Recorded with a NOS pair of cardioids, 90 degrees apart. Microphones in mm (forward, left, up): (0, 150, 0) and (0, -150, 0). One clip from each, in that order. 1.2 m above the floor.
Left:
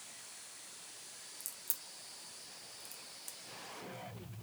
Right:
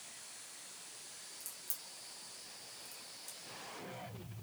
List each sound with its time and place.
1.4 s a crack: 30° left, 0.9 m